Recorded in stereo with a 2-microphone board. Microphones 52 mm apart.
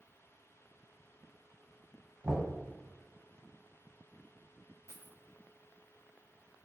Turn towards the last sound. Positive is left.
turn(degrees=65)  # may be behind; listen again after turning